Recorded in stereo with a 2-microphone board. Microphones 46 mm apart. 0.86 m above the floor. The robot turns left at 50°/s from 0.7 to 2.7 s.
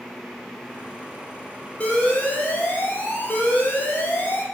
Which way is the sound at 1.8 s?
140° left.